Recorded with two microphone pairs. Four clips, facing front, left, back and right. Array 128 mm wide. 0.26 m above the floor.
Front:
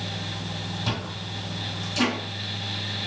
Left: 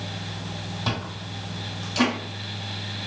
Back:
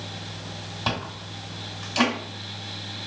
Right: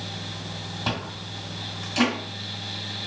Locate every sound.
0.9 s chewing: 175° right, 1.9 m